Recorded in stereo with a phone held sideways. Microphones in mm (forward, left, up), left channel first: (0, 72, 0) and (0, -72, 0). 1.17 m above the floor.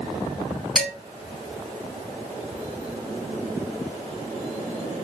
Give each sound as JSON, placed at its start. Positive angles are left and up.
{"t": 0.8, "sound": "dishes clattering", "side_deg": 0, "distance_m": 3.5}